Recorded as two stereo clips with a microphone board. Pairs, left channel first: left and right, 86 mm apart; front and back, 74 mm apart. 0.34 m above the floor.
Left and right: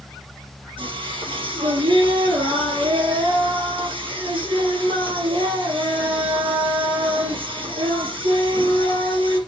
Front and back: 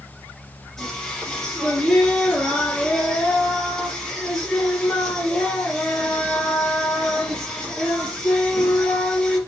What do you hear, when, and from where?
0.8 s singing: 80° right, 3.5 m